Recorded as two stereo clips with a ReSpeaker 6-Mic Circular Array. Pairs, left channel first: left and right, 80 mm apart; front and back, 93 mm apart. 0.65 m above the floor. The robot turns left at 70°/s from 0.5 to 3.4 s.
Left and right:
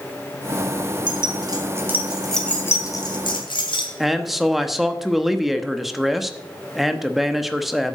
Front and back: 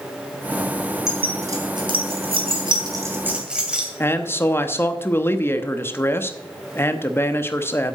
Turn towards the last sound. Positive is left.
turn(degrees=-5)